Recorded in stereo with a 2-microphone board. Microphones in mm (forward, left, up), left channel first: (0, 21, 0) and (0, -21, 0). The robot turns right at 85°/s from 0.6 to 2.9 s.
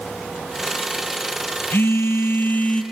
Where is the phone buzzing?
60° left, 1.2 m; by 2.8 s 155° left, 1.2 m.